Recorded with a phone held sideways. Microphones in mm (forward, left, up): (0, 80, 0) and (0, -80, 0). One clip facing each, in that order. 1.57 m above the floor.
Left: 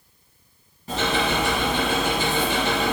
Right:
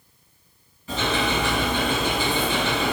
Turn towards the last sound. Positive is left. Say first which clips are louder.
# left 1 dB
turn(degrees=40)  # may be behind; listen again after turning